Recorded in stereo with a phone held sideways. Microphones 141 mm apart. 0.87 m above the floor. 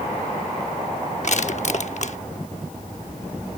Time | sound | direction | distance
1.2 | crushing | 55° left (ahead or behind) | ?